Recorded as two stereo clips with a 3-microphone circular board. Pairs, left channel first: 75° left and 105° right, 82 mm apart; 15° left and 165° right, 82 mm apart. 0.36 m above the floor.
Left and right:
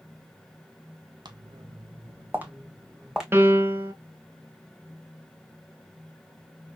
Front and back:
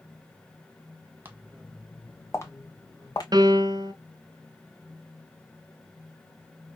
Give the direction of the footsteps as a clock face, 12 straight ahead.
3 o'clock.